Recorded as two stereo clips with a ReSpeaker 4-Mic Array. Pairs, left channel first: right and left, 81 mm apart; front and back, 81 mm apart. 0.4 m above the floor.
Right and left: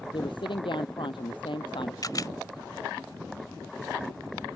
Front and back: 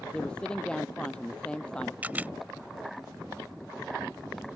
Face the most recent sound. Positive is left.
turn(degrees=-115)